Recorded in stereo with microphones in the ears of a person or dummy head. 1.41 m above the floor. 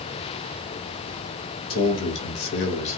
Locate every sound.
1.7 s a man speaking: 80° left, 0.9 m; by 3.0 s 35° left (ahead or behind), 0.6 m